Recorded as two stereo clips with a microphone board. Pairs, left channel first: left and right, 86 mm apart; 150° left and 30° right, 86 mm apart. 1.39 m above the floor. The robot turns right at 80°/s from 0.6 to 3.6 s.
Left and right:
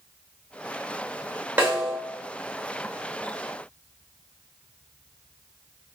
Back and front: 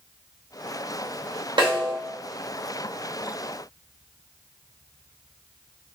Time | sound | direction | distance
1.6 | a snare drum | 30° right | 2.5 m